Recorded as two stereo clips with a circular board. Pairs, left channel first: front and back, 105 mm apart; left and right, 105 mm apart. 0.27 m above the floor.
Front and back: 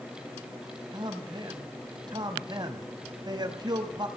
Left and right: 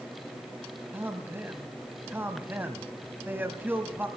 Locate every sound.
0.9 s a man speaking: 155° right, 1.3 m